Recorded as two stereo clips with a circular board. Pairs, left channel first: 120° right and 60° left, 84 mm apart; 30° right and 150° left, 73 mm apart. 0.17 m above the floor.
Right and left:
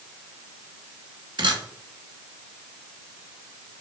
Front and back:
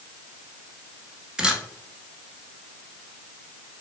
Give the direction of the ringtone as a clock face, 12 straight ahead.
No ringtone in this recording.